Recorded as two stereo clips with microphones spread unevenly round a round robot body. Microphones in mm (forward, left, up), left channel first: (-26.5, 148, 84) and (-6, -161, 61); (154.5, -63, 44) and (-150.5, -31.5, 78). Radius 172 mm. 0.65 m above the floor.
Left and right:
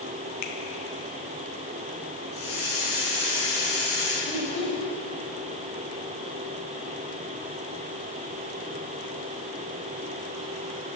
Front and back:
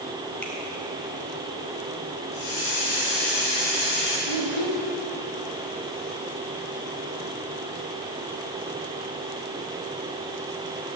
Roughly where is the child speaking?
Behind.